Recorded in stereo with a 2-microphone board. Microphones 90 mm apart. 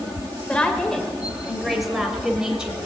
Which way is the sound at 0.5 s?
10° left (ahead or behind).